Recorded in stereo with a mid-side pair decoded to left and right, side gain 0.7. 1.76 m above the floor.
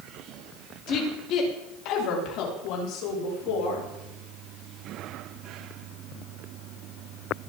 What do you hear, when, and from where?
0.9 s a woman speaking: 50° left, 4 m; by 3.9 s 70° left, 7 m